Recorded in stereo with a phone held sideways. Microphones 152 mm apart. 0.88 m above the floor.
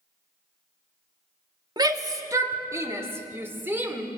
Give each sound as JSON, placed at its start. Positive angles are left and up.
{"t": 1.8, "sound": "a shout", "side_deg": -25, "distance_m": 1.8}